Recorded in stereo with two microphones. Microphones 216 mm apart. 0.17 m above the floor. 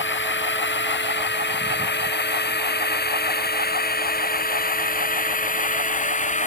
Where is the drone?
60° left (ahead or behind); by 6.5 s 35° left (ahead or behind).